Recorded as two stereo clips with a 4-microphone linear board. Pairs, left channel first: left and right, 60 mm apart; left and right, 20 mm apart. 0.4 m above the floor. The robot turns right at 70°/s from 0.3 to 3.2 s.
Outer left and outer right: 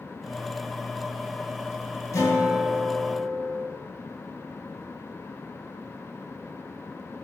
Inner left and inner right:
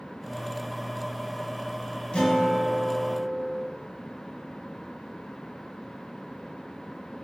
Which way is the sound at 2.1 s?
70° left.